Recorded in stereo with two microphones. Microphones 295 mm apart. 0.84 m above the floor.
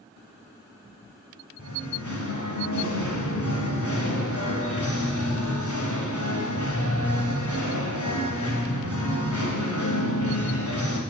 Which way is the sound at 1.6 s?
80° left.